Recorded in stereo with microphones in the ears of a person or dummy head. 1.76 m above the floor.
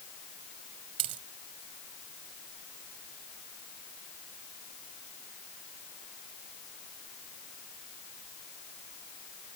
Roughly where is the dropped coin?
Right.